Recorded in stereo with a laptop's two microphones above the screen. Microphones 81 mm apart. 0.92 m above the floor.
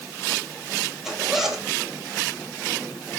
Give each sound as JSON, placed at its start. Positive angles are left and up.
{"t": 1.0, "sound": "a zipper", "side_deg": -5, "distance_m": 2.5}